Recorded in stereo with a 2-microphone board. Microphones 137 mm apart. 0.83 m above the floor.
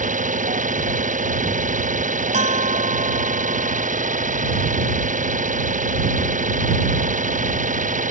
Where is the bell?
60° right (ahead or behind).